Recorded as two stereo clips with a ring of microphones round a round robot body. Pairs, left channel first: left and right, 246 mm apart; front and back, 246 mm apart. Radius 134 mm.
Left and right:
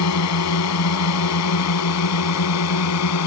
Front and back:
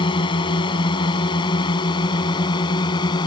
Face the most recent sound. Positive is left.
turn(degrees=75)